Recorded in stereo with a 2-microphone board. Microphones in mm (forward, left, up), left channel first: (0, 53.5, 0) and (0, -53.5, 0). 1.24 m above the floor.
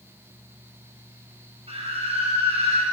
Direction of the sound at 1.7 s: 65° right (ahead or behind).